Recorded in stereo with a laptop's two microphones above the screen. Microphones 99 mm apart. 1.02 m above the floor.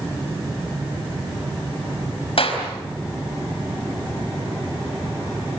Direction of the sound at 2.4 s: 70° left (ahead or behind).